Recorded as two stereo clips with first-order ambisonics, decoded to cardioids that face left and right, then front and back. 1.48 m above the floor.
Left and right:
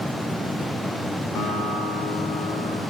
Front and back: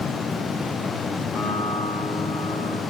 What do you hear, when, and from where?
1.4 s a guitar: 105° left, 3.5 m